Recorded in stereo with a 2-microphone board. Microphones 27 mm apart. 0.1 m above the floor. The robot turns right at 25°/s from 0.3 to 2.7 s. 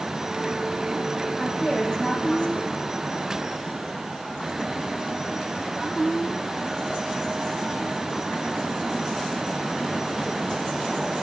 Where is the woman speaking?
30° left, 7 m; by 2.8 s 60° left, 7 m.